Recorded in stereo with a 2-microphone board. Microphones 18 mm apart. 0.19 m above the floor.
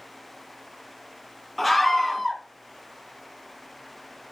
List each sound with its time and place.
1.6 s a scream: centre (ahead or behind), 1.6 m